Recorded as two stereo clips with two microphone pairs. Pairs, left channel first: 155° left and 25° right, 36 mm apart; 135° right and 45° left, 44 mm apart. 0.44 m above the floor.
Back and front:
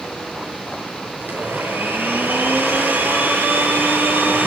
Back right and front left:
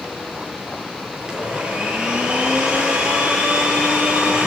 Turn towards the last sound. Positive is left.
turn(degrees=-25)